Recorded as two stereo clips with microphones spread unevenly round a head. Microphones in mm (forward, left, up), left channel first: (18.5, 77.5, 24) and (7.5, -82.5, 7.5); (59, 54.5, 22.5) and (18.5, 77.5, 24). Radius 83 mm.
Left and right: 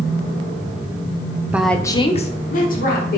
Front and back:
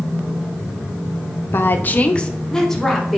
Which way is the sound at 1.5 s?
20° right.